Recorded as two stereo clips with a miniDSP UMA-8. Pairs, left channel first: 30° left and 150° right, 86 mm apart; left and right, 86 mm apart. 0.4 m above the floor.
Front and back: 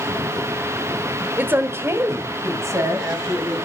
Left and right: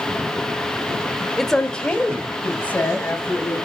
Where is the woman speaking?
175° left, 1.2 m; by 3.6 s 160° left, 4 m.